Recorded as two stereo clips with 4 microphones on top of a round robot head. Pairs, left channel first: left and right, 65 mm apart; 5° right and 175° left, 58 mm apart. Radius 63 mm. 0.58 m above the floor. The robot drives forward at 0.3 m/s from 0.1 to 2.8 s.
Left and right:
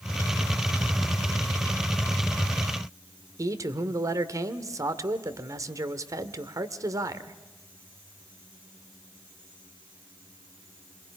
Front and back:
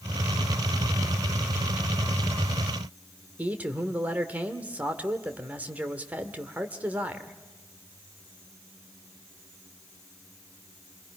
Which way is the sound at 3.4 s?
120° right.